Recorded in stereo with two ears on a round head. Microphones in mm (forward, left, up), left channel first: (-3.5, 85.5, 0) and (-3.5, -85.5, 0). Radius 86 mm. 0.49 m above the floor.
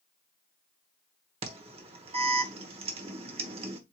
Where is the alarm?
30° right (ahead or behind), 1.0 m.